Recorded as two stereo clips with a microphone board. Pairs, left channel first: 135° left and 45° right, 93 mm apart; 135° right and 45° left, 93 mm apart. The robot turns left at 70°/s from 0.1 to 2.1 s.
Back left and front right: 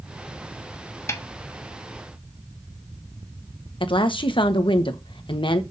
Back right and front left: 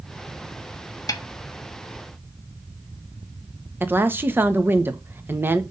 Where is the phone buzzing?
I don't hear a phone buzzing.